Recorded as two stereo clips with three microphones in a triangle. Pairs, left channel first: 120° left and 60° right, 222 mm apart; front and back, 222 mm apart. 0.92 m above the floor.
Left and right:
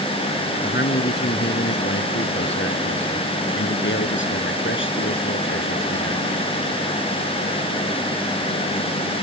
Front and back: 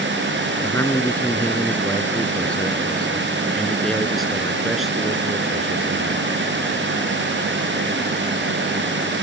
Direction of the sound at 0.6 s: 80° left.